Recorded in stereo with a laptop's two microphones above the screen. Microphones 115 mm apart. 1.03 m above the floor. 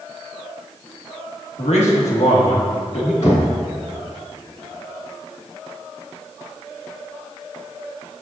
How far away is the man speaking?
About 1.5 m.